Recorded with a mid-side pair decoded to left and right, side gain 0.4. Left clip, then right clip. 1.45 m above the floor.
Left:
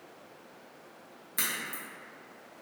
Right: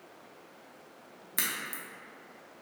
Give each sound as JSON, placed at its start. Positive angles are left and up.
{"t": 1.4, "sound": "a crack", "azimuth_deg": -35, "distance_m": 1.2}